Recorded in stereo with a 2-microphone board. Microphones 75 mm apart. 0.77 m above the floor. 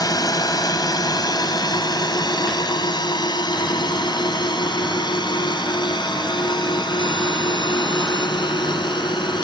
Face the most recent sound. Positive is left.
turn(degrees=80)